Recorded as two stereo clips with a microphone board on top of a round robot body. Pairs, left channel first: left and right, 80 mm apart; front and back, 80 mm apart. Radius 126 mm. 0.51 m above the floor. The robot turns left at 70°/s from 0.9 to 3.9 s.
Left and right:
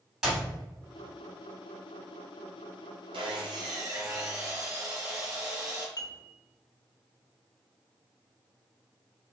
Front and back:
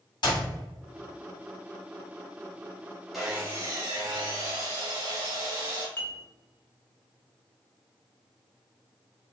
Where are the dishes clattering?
55° left, 0.9 m.